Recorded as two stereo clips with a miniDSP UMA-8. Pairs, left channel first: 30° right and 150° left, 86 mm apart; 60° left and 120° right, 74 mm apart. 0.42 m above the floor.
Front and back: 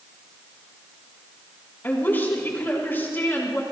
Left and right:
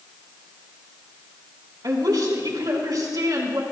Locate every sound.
1.8 s a woman speaking: 95° right, 4.5 m